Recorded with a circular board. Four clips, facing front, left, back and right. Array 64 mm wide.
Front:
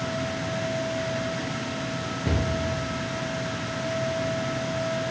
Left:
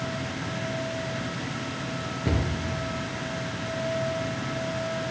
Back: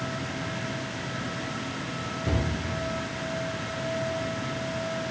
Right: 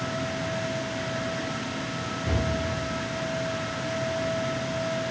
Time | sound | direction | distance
2.2 | a cupboard door | 55° left | 6 m